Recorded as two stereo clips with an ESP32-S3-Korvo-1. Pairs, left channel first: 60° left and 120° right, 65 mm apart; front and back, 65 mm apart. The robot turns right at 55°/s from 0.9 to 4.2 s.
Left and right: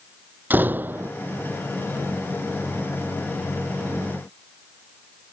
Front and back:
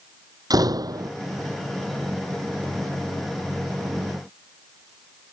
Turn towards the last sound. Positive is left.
turn(degrees=0)